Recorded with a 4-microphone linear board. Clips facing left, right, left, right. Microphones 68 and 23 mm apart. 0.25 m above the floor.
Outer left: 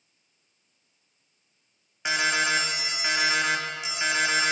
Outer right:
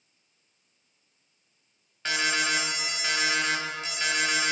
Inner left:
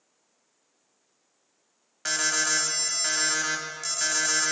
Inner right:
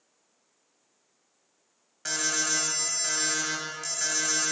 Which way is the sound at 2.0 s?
15° left (ahead or behind).